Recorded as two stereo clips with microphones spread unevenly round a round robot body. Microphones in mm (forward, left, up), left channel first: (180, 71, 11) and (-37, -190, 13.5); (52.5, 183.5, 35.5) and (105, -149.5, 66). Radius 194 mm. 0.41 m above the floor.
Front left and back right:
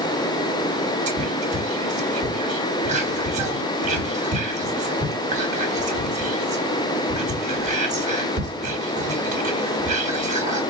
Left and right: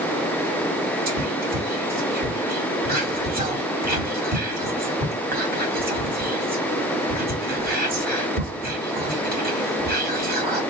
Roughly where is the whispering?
Right.